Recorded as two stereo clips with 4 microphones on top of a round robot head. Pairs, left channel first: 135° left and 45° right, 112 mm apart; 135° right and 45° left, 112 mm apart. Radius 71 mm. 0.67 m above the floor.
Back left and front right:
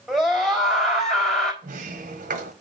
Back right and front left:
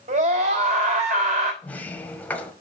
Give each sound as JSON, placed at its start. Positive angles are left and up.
{"t": 0.1, "sound": "a scream", "azimuth_deg": 45, "distance_m": 4.5}
{"t": 1.6, "sound": "a sliding door", "azimuth_deg": -60, "distance_m": 1.1}